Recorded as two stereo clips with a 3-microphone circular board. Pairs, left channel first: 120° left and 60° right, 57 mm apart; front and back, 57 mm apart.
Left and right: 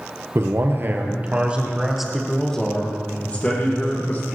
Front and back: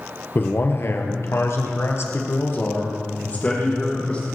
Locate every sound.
0.3 s a man speaking: 40° right, 2.5 m; by 4.3 s 65° left, 4.5 m